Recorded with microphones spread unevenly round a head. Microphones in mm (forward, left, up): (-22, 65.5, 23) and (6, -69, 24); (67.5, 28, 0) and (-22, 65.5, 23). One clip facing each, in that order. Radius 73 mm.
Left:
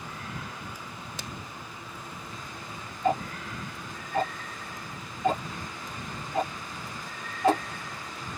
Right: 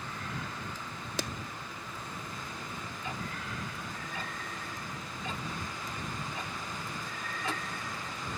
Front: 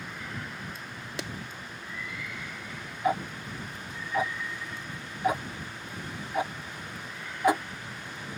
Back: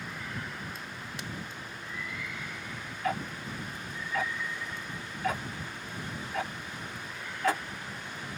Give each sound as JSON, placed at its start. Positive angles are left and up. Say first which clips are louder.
{"t": 1.2, "sound": "a clap", "louder": "right 8 dB, front 7 dB", "azimuth_deg": -45}
{"t": 3.0, "sound": "ticking", "louder": "left 14 dB, front 4 dB", "azimuth_deg": 50}